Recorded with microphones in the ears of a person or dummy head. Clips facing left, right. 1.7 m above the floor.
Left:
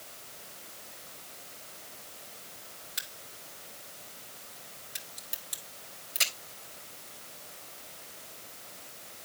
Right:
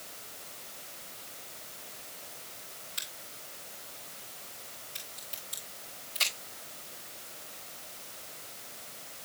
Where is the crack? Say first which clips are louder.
Even; 20° left (ahead or behind), 3 m.